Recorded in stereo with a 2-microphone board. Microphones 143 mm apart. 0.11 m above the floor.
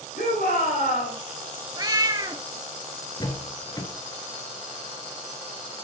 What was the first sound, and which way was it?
A shout, 75° left (ahead or behind).